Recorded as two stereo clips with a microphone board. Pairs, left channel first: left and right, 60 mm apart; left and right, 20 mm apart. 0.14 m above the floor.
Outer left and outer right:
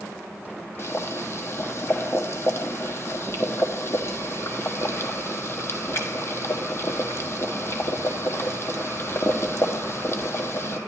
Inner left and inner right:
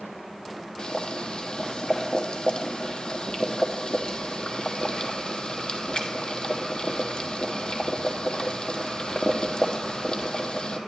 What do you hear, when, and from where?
0.8 s boiling: 45° left (ahead or behind), 1.2 m